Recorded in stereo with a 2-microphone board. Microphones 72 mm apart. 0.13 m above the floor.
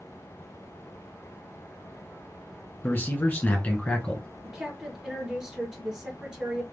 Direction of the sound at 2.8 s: 30° left (ahead or behind).